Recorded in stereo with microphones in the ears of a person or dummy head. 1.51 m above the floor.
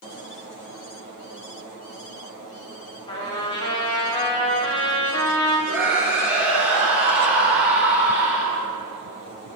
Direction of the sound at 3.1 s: 20° left (ahead or behind).